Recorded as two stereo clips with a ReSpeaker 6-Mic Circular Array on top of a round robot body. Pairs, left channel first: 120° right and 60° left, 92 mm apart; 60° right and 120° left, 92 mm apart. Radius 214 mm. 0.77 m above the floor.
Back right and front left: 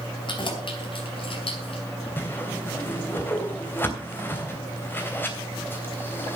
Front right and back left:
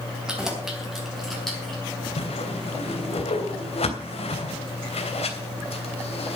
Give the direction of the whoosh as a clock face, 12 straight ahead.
2 o'clock.